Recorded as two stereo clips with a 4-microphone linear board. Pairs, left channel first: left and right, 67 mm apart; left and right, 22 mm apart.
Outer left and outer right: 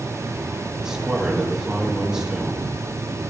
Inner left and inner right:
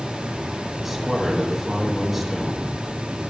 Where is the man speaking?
10° right (ahead or behind), 3.5 m.